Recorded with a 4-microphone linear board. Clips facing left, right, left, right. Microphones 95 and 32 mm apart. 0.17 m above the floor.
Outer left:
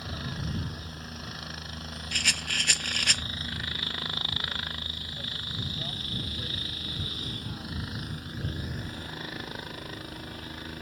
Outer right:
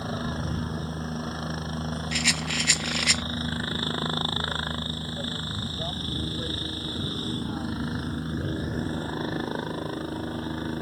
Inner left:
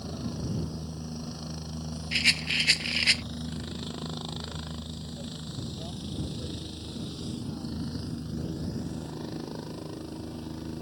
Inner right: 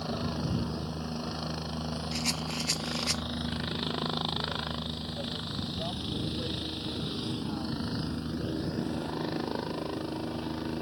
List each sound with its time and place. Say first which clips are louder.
0.0 s a helicopter: outer right 7 dB, inner right 3 dB; 35° right (ahead or behind)
2.1 s a rattle: outer right 2 dB, inner left 11 dB; 55° left (ahead or behind)